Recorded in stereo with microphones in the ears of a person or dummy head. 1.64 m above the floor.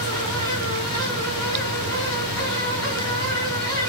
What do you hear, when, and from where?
0.0 s a fan: 25° right (ahead or behind), 2 m